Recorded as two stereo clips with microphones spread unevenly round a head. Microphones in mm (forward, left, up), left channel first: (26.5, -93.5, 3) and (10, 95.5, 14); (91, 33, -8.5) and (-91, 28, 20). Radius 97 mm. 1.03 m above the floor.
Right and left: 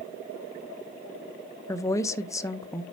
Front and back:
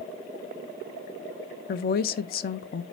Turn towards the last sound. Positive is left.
turn(degrees=-15)